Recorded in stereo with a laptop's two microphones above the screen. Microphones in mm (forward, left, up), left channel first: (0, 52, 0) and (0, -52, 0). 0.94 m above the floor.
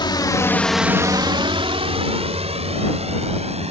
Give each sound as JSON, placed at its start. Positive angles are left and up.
{"t": 0.0, "sound": "a drone", "side_deg": 50}